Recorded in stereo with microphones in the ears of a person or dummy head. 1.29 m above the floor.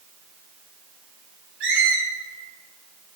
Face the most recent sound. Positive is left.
turn(degrees=-70)  # may be behind; listen again after turning